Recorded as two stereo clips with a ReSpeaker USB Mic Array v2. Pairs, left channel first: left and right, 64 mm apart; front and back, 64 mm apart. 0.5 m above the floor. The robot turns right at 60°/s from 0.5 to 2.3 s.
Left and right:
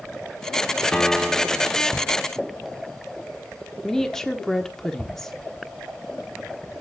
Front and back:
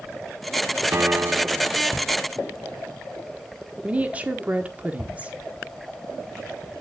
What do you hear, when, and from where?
0.9 s a piano: 155° left, 0.6 m; by 1.7 s 155° right, 0.6 m
3.8 s a woman speaking: 165° left, 1.1 m